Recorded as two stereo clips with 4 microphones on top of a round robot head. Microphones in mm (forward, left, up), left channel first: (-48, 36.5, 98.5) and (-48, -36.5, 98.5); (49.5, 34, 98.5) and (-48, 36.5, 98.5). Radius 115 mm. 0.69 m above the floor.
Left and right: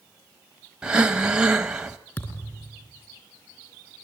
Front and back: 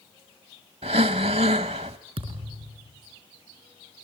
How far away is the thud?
About 5 m.